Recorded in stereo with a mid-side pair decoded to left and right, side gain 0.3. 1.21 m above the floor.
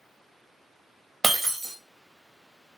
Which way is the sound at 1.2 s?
40° right.